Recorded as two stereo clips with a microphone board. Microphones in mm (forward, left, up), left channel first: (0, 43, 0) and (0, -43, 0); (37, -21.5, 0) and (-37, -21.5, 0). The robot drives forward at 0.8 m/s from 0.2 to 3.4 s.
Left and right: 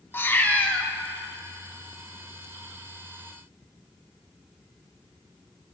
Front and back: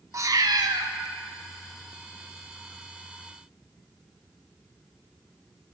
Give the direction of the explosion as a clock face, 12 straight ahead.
No explosion in this recording.